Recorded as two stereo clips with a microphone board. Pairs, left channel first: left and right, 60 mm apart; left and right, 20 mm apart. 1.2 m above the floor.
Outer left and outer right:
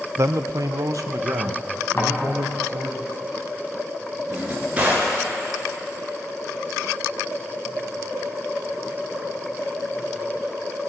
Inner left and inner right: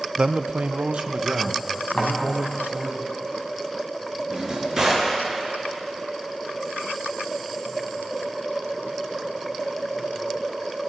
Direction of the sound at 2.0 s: 40° left (ahead or behind).